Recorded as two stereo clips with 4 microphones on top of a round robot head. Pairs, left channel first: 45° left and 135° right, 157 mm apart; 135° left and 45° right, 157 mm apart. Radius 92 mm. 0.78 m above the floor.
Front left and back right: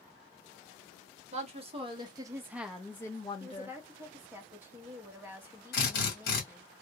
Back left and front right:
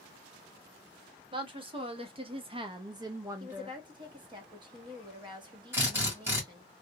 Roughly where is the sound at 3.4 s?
Right.